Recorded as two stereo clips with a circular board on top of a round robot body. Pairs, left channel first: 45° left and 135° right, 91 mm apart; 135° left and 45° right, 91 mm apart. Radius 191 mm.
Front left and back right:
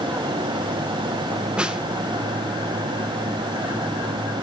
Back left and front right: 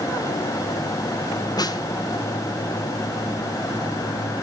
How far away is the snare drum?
About 2 m.